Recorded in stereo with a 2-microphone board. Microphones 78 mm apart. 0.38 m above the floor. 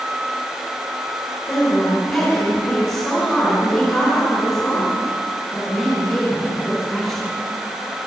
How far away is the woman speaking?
About 4 m.